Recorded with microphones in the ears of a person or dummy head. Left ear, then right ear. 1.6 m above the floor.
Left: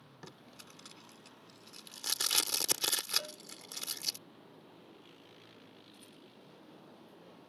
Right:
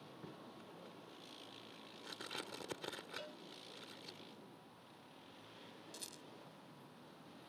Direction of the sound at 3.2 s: 10° left (ahead or behind).